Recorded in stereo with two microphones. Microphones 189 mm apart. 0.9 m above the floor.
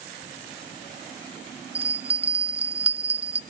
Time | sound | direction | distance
1.8 | a bell | 30° right (ahead or behind) | 0.6 m